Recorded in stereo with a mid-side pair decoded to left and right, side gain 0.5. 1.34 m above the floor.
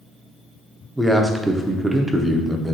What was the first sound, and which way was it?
A man speaking, 10° right.